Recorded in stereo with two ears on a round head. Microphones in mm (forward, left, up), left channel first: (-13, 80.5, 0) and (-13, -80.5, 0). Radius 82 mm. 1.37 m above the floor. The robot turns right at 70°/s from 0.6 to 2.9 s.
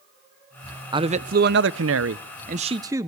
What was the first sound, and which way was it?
A man speaking, 155° right.